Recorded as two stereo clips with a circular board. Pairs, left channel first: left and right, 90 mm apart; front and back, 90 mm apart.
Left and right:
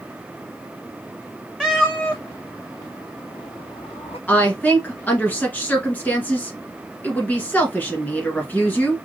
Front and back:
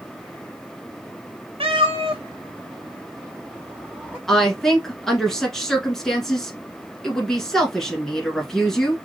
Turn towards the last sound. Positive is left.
turn(degrees=75)